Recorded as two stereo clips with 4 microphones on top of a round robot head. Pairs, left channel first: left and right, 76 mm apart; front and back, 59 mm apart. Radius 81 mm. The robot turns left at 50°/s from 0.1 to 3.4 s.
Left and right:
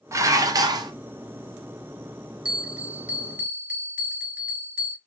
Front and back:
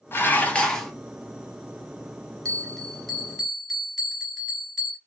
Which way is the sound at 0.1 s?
45° right.